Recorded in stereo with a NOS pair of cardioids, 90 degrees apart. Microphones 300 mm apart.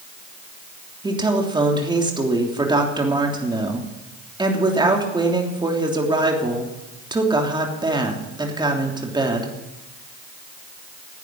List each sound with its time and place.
1.0 s a woman speaking: 15° right, 3 m